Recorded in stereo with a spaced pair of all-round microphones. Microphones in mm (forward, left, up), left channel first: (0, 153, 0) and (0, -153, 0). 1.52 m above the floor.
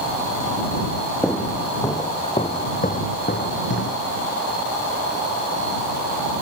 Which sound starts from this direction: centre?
Footsteps, at 1.2 s.